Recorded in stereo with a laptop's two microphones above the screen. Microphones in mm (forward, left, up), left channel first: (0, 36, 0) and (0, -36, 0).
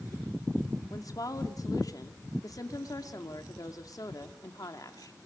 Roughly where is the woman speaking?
Left.